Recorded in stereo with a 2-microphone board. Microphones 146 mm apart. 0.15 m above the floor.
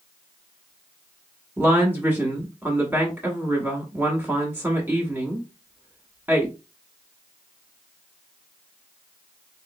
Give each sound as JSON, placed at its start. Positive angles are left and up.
{"t": 1.6, "sound": "a woman speaking", "side_deg": -15, "distance_m": 1.0}